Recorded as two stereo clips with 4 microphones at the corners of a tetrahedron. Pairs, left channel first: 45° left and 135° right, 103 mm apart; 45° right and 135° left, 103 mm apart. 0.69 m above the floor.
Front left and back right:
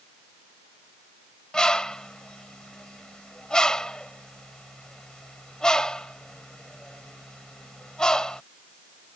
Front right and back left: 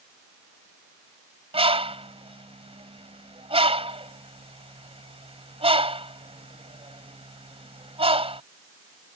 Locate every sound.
1.5 s a bird: 125° left